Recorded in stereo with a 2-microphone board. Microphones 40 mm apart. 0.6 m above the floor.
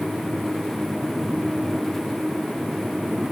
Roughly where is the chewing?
No chewing in this recording.